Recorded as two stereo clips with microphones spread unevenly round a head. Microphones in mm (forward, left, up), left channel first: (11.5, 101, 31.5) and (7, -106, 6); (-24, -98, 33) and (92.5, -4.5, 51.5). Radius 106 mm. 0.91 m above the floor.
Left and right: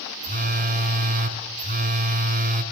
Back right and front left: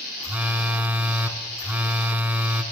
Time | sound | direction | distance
0.2 | a phone buzzing | 40° right | 2.5 m